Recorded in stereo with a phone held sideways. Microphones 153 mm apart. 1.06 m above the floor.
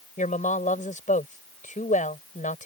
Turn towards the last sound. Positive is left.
turn(degrees=55)  # may be behind; listen again after turning